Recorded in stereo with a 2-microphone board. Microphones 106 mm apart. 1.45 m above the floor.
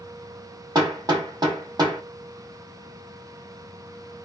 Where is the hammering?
40° right (ahead or behind), 1.5 m.